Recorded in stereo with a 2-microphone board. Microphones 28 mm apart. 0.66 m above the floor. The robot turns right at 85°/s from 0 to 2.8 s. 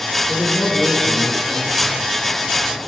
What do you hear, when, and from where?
0.3 s a man speaking: 70° left, 1.8 m; by 2.0 s 140° right, 1.8 m